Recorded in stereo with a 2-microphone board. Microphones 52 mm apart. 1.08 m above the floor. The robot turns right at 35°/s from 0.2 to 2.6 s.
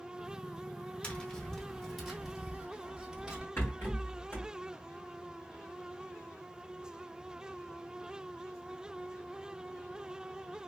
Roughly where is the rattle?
Left.